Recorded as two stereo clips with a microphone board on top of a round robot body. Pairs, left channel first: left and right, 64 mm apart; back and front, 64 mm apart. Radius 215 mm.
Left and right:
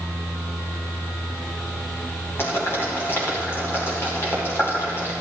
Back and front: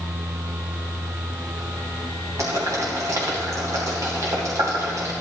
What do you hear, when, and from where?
2.4 s boiling: 40° left, 3 m